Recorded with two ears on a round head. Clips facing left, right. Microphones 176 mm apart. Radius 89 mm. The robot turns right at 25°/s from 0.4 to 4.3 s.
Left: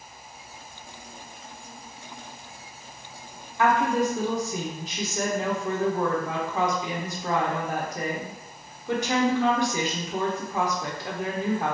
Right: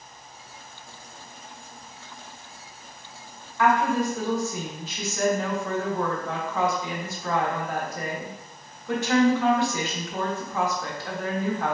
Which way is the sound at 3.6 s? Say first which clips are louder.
Even; 20° left (ahead or behind).